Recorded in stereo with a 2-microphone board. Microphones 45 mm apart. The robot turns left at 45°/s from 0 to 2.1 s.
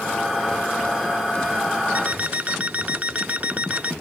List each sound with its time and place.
1.9 s an alarm clock: 40° right (ahead or behind); by 3.9 s 35° right (ahead or behind)